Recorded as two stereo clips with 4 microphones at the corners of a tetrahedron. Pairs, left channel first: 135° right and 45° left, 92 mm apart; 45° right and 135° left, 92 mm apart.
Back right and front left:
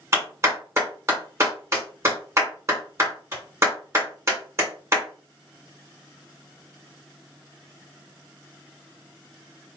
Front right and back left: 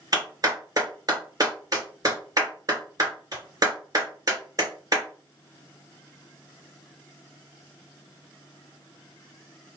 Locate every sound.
0.1 s a clap: 100° left, 2.0 m